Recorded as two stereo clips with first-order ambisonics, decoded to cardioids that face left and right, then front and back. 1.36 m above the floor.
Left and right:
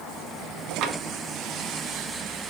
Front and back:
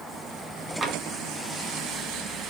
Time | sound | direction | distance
0.8 | tapping | 115° right | 0.8 m